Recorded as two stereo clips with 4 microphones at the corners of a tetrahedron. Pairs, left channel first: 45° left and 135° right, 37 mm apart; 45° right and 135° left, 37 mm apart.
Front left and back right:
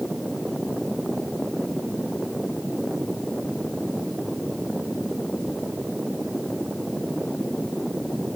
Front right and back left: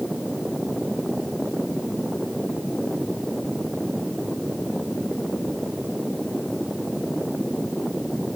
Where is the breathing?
No breathing in this recording.